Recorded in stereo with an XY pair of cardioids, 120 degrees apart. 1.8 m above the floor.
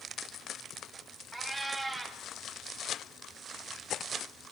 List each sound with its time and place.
1.3 s a cat meowing: 20° right, 5 m